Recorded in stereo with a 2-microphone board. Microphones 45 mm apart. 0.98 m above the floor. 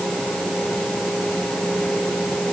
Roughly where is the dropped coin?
No dropped coin in this recording.